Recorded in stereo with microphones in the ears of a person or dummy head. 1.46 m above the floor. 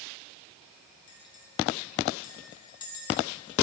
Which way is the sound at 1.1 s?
25° left (ahead or behind).